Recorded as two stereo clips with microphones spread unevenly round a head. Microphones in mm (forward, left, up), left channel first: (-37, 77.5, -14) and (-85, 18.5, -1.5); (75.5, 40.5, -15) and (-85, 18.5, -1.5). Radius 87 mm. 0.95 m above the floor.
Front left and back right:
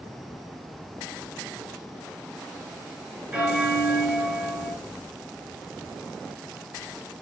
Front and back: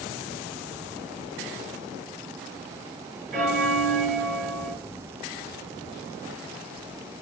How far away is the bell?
About 4.5 m.